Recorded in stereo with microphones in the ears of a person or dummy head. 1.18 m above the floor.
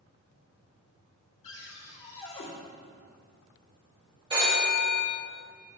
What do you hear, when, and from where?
1.4 s a cupboard door: 30° left (ahead or behind), 3 m
4.3 s a phone ringing: 30° right (ahead or behind), 2.5 m